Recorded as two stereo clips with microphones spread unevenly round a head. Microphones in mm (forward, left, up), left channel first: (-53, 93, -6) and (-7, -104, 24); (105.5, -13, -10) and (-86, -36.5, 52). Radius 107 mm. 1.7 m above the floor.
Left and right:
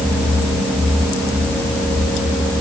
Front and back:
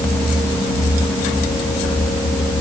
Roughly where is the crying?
No crying in this recording.